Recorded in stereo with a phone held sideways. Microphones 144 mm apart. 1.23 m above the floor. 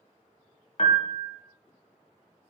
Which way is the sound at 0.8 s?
50° left (ahead or behind).